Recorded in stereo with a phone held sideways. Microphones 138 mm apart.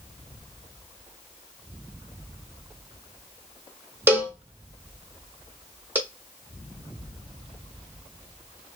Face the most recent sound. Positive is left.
turn(degrees=-15)  # may be behind; listen again after turning